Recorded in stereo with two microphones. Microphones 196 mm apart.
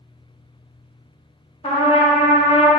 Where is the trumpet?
30° left (ahead or behind), 0.8 m.